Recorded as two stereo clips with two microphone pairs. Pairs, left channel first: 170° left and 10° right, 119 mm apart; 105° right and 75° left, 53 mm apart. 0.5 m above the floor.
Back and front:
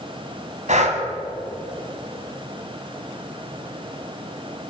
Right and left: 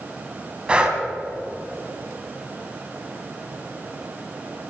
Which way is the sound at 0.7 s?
5° left.